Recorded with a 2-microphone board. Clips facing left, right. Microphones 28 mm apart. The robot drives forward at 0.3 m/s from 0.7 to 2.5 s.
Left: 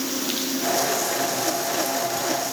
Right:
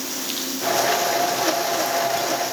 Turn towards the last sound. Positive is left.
No sound to turn to.